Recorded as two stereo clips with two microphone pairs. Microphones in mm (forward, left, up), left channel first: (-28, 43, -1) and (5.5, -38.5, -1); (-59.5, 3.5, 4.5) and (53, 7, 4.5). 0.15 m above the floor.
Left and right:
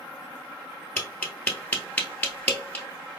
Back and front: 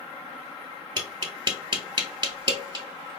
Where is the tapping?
45° left, 1.1 m.